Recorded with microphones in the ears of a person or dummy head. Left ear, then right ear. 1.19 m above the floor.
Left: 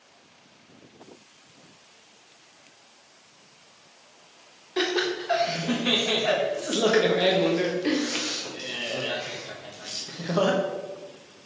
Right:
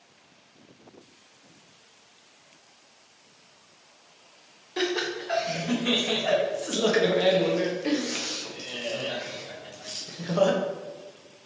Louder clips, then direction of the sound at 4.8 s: Left 2 dB; 5° left (ahead or behind).